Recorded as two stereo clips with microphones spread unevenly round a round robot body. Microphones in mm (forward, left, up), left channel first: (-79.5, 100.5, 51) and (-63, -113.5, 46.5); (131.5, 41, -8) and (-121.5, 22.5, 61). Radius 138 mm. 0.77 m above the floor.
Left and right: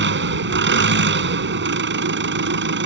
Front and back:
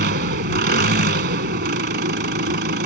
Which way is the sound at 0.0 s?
120° right.